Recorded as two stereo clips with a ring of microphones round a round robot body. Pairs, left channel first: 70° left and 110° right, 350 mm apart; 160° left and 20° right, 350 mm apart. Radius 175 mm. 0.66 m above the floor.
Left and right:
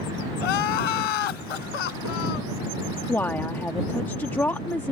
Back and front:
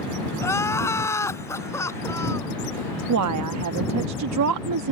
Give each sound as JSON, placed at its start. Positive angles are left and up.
{"t": 0.4, "sound": "crying", "azimuth_deg": 75}
{"t": 3.1, "sound": "a woman speaking", "azimuth_deg": -15}